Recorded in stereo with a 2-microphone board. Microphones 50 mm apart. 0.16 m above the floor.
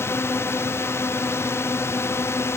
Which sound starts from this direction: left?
A drone, at 0.0 s.